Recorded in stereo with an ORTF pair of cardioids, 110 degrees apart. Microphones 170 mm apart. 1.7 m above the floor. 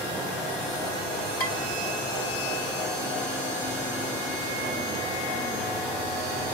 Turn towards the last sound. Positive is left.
turn(degrees=65)